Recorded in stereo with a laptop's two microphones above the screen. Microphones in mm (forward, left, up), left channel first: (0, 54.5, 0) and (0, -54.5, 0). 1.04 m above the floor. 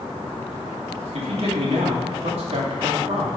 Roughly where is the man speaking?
Right.